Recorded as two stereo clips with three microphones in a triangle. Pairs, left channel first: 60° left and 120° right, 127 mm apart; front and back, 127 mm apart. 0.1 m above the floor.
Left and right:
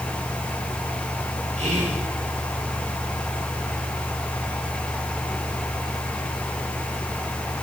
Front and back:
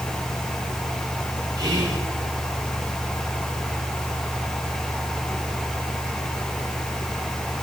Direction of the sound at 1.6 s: 125° right.